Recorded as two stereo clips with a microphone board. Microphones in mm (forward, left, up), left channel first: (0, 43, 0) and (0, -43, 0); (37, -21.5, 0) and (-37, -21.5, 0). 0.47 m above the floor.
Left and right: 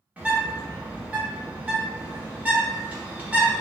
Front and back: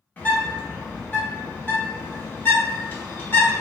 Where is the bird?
35° right, 0.8 m.